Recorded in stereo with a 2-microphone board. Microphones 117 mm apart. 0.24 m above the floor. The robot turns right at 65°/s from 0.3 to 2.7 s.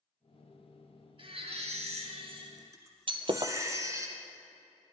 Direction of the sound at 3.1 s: 50° right (ahead or behind).